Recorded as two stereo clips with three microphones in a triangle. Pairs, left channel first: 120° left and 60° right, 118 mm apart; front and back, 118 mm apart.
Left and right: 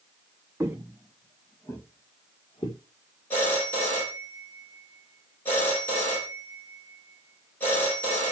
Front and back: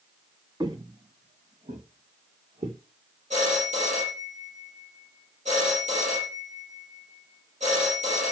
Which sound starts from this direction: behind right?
Footsteps, at 0.6 s.